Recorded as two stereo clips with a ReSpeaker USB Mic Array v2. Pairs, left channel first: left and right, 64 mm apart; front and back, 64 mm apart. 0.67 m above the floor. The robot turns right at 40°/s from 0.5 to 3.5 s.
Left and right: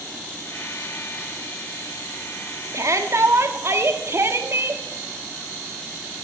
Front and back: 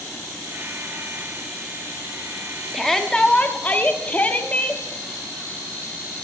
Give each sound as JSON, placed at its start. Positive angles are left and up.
{"t": 2.7, "sound": "a shout", "azimuth_deg": -90, "distance_m": 1.1}